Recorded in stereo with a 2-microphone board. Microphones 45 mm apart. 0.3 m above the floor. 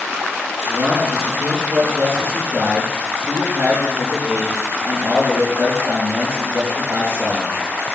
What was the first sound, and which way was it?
A man speaking, 55° right (ahead or behind).